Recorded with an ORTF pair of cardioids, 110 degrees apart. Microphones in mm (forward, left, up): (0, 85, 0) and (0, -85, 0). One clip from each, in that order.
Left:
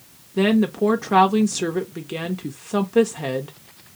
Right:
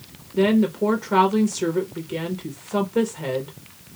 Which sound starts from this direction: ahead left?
A woman speaking, at 0.4 s.